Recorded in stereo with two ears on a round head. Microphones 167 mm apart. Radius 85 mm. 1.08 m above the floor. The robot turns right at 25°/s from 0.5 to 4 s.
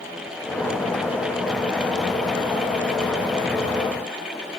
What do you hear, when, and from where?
Only background noise.